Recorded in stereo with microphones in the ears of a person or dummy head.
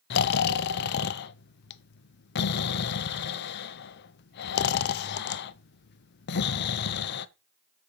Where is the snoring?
50° left (ahead or behind), 0.6 m.